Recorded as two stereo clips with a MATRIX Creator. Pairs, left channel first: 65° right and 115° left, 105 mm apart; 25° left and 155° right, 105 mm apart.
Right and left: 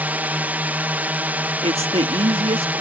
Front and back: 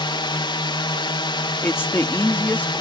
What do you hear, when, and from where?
0.0 s a drone: 45° left
1.6 s a woman speaking: 90° left